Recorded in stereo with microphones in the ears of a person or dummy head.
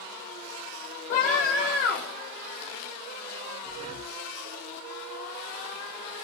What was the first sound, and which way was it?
A scream, 45° left (ahead or behind).